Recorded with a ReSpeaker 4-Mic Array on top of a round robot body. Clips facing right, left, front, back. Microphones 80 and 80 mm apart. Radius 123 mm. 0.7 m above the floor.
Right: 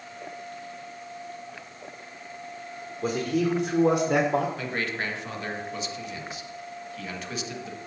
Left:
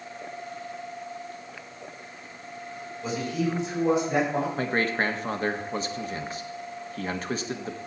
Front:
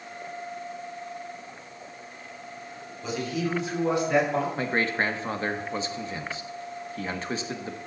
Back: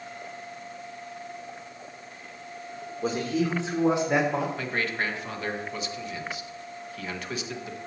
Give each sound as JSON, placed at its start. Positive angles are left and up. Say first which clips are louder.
{"t": 3.0, "sound": "a man speaking", "louder": "right 3 dB, back 3 dB", "azimuth_deg": -130, "distance_m": 2.5}
{"t": 4.6, "sound": "a man speaking", "louder": "left 5 dB, front 3 dB", "azimuth_deg": 50, "distance_m": 1.5}